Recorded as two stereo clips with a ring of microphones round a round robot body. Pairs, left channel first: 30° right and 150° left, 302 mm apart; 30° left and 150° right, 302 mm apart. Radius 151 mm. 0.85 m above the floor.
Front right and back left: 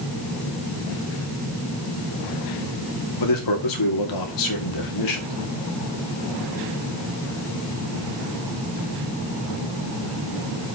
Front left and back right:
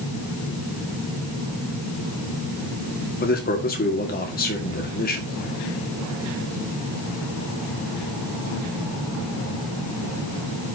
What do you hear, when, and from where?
3.2 s a man speaking: 30° right, 2.5 m